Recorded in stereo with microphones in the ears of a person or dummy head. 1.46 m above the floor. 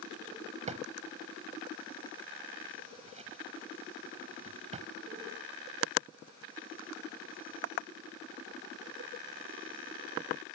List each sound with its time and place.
0.7 s a drawer: 35° right (ahead or behind)